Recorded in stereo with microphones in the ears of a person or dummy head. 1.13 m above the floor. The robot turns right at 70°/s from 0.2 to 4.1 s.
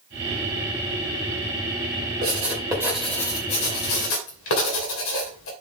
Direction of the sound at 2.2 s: 55° right (ahead or behind).